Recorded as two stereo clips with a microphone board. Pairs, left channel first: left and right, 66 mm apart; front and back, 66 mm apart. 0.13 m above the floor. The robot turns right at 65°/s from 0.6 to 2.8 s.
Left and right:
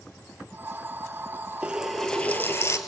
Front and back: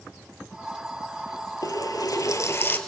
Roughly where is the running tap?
Ahead.